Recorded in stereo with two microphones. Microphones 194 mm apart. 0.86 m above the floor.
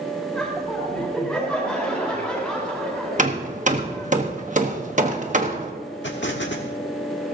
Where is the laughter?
5° left (ahead or behind), 3.5 m.